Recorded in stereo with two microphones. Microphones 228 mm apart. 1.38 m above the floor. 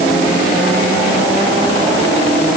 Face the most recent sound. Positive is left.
No sound to turn to.